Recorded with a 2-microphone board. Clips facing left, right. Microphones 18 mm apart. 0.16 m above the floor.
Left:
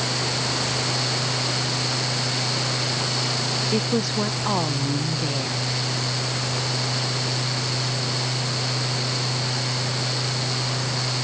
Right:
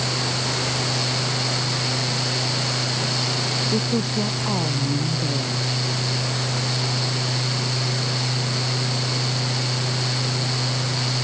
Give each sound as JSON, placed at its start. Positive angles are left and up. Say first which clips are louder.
{"t": 3.7, "sound": "a woman speaking", "louder": "even", "side_deg": 35}